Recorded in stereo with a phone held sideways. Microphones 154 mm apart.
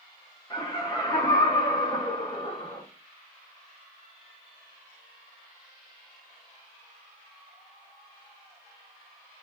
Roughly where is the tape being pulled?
I don't hear tape being pulled.